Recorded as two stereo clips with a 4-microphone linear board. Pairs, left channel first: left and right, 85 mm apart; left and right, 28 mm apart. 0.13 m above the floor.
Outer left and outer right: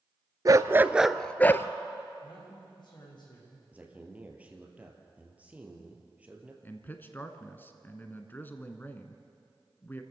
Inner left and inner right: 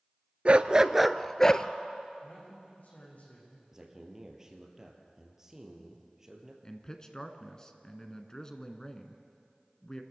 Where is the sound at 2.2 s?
60° left (ahead or behind), 8.5 m.